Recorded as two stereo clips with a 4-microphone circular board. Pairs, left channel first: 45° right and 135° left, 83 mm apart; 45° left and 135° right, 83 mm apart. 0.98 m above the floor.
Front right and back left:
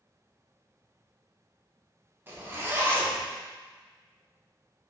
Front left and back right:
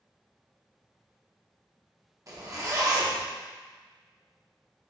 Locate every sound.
2.3 s a zipper: 170° right, 0.8 m